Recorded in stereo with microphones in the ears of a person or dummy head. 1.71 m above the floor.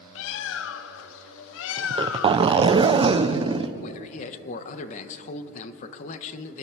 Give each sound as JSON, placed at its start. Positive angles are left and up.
{"t": 0.1, "sound": "a bird", "side_deg": 80, "distance_m": 0.7}
{"t": 1.8, "sound": "a zipper", "side_deg": -30, "distance_m": 1.0}
{"t": 3.8, "sound": "a man speaking", "side_deg": 45, "distance_m": 1.5}